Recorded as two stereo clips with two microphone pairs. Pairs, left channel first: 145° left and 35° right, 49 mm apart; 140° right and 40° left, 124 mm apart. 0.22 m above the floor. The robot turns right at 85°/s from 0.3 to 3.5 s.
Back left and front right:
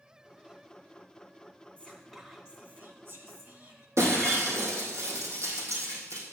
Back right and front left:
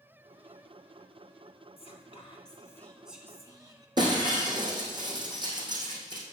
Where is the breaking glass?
15° right, 3 m.